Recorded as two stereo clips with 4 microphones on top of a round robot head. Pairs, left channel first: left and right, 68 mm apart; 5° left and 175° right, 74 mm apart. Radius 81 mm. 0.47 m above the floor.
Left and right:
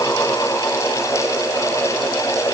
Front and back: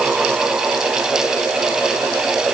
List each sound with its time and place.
Only background noise.